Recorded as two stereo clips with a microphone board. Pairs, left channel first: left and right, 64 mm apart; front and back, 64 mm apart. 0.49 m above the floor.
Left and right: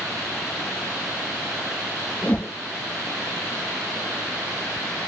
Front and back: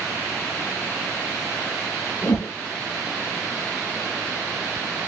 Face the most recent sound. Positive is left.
turn(degrees=35)